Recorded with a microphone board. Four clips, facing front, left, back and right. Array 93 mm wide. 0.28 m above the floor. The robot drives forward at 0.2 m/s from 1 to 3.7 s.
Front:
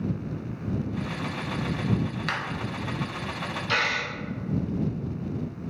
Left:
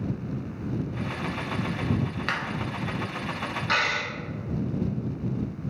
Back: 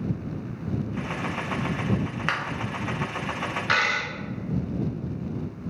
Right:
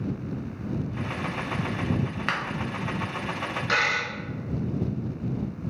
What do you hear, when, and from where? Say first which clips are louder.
2.3 s a clap: right 2 dB, back 6 dB; 160° right, 0.7 m
3.7 s a dropped coin: right 1 dB, back 2 dB; 175° right, 1.3 m